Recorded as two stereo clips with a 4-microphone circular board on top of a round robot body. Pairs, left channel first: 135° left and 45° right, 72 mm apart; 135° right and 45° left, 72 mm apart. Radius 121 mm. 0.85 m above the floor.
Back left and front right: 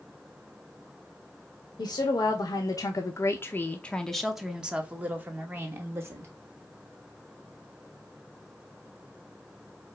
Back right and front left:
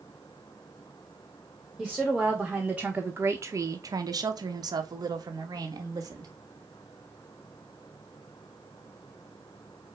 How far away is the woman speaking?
About 1.3 m.